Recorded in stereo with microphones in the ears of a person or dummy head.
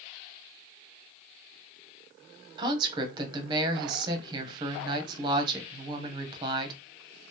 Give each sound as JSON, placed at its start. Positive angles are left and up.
{"t": 2.6, "sound": "a woman speaking", "side_deg": -25, "distance_m": 0.7}